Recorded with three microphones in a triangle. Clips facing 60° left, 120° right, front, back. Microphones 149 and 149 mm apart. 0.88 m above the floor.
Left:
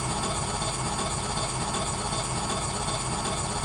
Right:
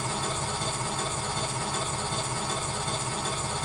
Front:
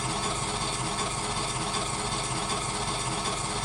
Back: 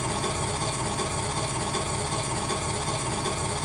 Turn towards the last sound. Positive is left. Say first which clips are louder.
# left 1 dB, back 3 dB
turn(degrees=135)